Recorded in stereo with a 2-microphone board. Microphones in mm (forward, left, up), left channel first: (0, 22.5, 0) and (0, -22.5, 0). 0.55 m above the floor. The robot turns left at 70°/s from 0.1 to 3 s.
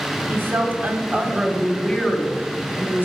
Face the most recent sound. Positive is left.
turn(degrees=90)